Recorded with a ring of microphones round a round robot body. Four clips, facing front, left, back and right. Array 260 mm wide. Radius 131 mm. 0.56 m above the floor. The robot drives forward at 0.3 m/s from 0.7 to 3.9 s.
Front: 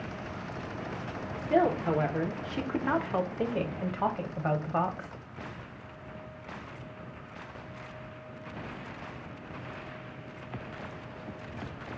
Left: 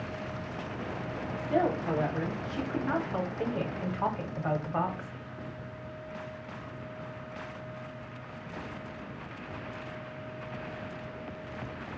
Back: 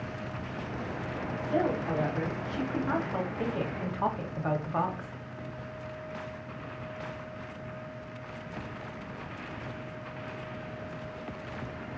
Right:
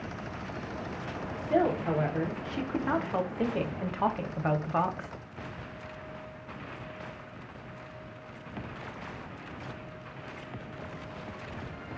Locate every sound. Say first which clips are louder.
1.4 s a woman speaking: right 2 dB, front 4 dB; 15° right, 1.1 m; by 5.1 s 65° right, 0.7 m